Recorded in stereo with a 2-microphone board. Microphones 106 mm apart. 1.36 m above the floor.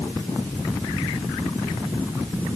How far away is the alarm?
I don't hear an alarm.